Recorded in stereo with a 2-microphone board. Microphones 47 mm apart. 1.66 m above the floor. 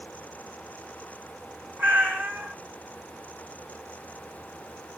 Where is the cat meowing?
40° right (ahead or behind), 1.9 m.